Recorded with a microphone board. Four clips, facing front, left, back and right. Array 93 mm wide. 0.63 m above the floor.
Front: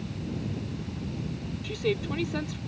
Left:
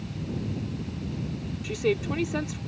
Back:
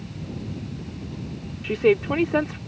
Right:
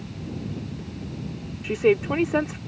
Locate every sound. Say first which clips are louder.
1.6 s a woman speaking: right 7 dB, back 10 dB; 145° right